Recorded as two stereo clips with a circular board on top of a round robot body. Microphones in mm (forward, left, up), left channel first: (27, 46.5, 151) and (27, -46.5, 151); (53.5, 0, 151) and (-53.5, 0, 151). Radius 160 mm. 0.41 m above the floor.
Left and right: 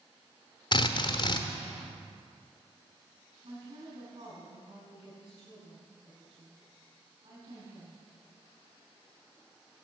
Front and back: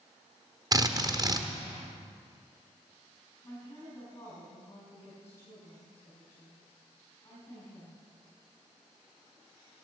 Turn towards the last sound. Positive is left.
turn(degrees=-70)